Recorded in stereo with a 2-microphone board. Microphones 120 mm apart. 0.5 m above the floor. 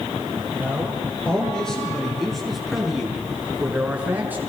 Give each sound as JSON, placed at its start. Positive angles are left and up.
{"t": 0.5, "sound": "a man speaking", "side_deg": 10, "distance_m": 8.0}